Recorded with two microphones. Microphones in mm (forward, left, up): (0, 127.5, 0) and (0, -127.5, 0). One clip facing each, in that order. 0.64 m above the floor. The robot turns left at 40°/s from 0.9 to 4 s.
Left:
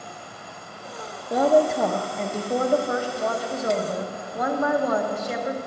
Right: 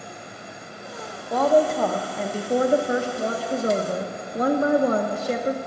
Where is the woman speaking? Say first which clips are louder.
Even; 25° left, 0.6 m; by 5.6 s 80° right, 0.6 m.